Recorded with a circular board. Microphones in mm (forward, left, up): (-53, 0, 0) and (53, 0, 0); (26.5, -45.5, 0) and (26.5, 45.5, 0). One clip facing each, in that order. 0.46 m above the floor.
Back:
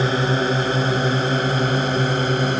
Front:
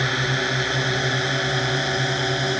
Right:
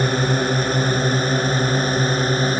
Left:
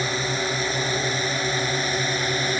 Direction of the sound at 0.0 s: 130° right.